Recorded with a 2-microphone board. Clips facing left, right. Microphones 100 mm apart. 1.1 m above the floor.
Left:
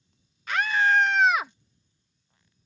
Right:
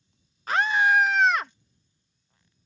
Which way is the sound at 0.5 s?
40° right (ahead or behind).